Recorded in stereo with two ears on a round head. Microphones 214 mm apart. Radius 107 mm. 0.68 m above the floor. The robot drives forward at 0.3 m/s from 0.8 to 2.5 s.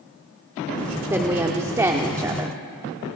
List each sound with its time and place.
1.1 s a woman speaking: 10° right (ahead or behind), 1.4 m; by 2.6 s 15° right (ahead or behind), 1.0 m